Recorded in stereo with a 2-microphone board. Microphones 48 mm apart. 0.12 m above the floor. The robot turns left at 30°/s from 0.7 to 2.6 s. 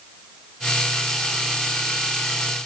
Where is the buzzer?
I don't hear a buzzer.